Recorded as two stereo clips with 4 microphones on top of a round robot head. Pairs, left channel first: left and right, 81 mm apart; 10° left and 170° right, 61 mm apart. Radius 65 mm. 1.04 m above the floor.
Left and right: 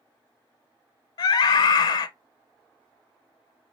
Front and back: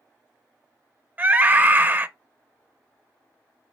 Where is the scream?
125° left, 0.6 m.